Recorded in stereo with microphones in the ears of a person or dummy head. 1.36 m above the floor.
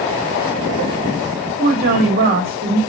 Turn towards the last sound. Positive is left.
turn(degrees=-45)  # may be behind; listen again after turning